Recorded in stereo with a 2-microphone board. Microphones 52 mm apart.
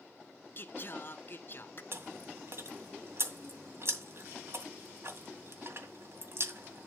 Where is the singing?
45° left (ahead or behind), 0.6 m.